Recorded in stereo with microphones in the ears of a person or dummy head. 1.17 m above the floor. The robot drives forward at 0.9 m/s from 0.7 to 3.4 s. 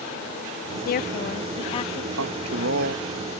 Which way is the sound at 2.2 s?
75° right (ahead or behind).